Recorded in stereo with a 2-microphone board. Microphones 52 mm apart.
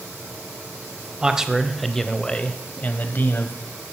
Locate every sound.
1.2 s a man speaking: 15° right (ahead or behind), 1.2 m; by 3.5 s 45° left (ahead or behind), 1.5 m